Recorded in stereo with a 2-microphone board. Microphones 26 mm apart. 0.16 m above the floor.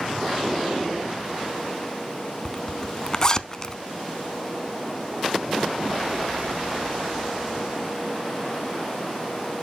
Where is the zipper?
30° left (ahead or behind), 0.6 m.